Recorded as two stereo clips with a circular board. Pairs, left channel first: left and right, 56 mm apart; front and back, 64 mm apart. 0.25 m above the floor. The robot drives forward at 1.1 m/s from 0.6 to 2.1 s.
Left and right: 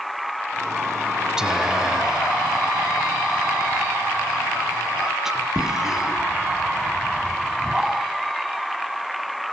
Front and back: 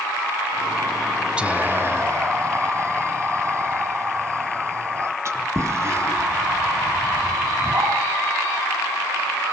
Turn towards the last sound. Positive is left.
turn(degrees=-170)